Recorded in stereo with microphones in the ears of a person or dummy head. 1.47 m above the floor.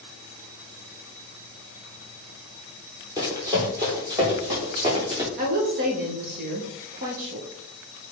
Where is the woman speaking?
50° right (ahead or behind), 1.7 m.